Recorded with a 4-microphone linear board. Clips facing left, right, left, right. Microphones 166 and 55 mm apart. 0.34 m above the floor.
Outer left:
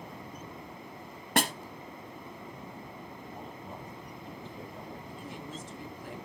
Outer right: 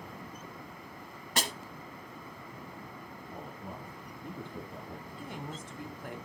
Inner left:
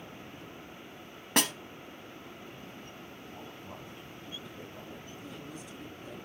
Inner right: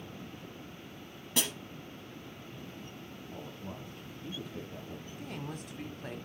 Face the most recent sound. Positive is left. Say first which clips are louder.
# even, inner right 3 dB
turn(degrees=-60)  # may be behind; listen again after turning